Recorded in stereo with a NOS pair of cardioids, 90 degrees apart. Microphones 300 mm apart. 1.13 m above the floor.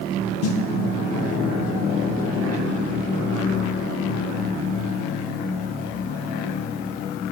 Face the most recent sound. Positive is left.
turn(degrees=55)